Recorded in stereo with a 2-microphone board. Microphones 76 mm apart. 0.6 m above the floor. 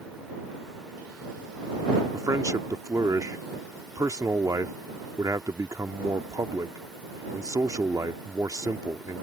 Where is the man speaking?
50° right (ahead or behind).